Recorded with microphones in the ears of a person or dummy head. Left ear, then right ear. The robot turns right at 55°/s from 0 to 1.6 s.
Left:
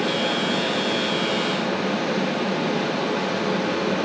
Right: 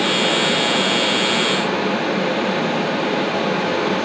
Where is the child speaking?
I don't hear a child speaking.